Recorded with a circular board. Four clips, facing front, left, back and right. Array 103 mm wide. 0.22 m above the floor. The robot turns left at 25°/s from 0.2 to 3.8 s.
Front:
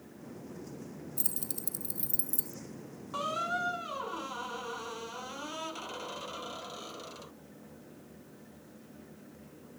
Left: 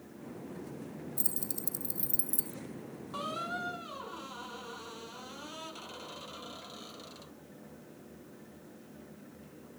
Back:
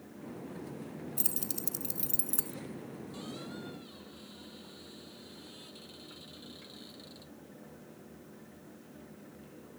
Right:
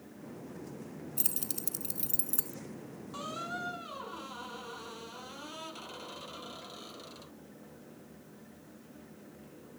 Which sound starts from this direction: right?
Keys jangling, at 1.2 s.